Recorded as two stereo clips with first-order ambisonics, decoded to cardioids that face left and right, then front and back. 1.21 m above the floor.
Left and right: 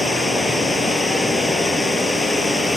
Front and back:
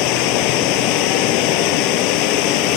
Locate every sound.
0.0 s running water: 5° left